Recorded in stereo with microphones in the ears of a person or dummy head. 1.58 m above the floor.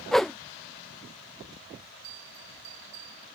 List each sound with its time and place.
0.1 s a whoosh: centre (ahead or behind)
2.0 s a bell: 50° right (ahead or behind)